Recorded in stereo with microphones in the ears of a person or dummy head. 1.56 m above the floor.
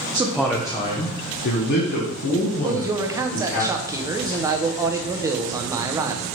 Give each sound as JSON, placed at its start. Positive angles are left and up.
{"t": 0.1, "sound": "a man speaking", "side_deg": -15, "distance_m": 0.8}
{"t": 2.6, "sound": "a man speaking", "side_deg": -15, "distance_m": 0.7}